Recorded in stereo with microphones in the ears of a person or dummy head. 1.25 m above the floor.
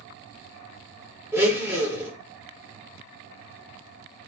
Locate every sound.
1.3 s a blender: 10° right (ahead or behind), 1.0 m